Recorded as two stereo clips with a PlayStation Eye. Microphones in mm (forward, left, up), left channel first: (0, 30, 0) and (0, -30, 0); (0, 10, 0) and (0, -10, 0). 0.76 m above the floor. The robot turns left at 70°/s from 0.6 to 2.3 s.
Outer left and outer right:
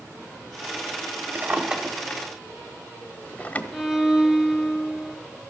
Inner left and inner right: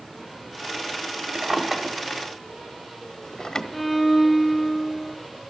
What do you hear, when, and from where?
1.4 s a drawer: 40° right (ahead or behind), 1.2 m; by 3.6 s 25° left (ahead or behind), 1.2 m
3.7 s a violin: centre (ahead or behind), 1.2 m